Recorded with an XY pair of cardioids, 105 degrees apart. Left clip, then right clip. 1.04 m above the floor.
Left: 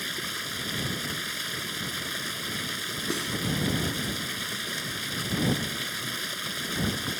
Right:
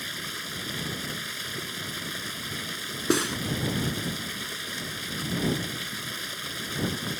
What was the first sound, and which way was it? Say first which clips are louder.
Running water: left 2 dB; 10° left.